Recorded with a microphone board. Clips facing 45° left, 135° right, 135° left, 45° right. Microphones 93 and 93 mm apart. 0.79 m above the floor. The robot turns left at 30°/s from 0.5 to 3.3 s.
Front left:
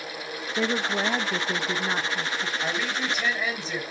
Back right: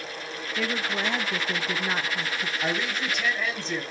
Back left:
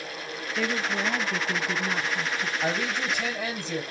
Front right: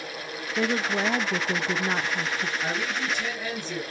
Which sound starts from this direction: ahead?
A woman speaking, at 0.6 s.